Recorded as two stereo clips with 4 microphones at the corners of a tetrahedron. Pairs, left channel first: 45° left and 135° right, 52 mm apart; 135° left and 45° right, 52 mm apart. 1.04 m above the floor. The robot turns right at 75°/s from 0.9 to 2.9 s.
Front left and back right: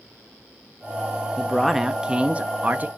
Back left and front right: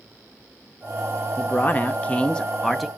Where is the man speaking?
115° left, 0.5 m; by 2.9 s 130° right, 0.5 m.